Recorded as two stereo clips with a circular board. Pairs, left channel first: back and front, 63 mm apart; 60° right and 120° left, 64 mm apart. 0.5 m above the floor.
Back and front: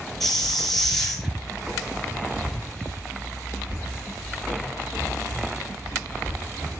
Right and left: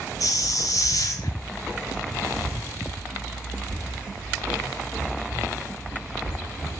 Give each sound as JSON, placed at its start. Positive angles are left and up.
{"t": 0.2, "sound": "a hiss", "azimuth_deg": -95, "distance_m": 2.0}